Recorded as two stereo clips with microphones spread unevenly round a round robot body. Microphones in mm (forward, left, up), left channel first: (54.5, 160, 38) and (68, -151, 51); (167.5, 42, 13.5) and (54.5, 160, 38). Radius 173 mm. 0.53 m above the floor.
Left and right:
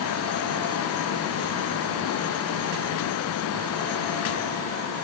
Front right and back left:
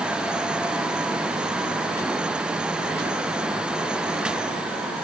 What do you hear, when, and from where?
Only background noise.